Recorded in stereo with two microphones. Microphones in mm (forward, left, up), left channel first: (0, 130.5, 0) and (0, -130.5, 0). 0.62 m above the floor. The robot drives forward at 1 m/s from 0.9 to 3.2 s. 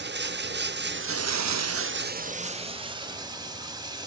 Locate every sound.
0.0 s running water: 40° right (ahead or behind), 0.7 m; by 4.1 s 15° right (ahead or behind), 1.8 m